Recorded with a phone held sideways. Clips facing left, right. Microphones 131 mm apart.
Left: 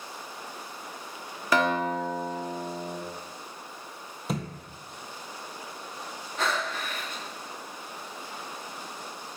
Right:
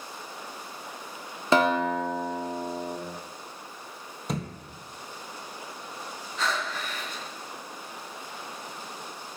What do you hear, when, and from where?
1.5 s a guitar: 25° right (ahead or behind), 1.0 m
4.3 s a thud: 5° left (ahead or behind), 1.6 m
6.4 s breathing: 55° left (ahead or behind), 1.4 m